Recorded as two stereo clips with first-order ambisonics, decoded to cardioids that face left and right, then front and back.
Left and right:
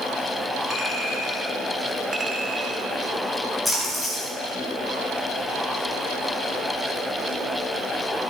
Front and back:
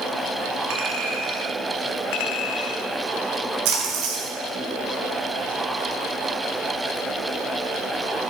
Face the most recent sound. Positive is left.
turn(degrees=180)